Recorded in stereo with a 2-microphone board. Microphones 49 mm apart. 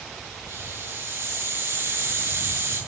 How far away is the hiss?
About 8 m.